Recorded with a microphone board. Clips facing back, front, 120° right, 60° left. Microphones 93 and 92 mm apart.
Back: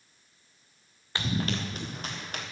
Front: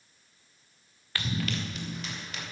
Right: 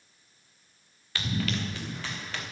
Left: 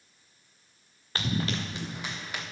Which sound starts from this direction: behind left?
Running footsteps, at 1.1 s.